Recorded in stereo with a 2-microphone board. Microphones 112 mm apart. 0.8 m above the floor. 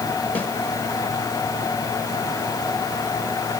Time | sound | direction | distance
0.3 | a snare drum | 15° left (ahead or behind) | 2.0 m